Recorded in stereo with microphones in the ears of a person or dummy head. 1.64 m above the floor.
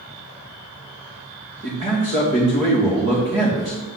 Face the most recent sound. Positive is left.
turn(degrees=-30)  # may be behind; listen again after turning